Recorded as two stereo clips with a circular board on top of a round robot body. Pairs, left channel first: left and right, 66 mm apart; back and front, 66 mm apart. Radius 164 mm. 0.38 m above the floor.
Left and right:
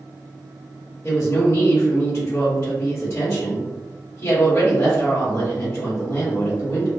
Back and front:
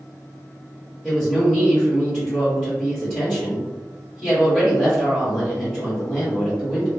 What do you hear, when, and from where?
1.0 s a woman speaking: 95° left, 1.6 m